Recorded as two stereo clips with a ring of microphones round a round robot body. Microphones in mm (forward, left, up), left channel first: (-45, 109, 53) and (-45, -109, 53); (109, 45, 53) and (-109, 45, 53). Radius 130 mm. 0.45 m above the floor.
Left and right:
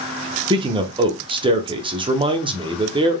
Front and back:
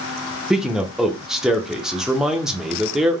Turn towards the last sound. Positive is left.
turn(degrees=-95)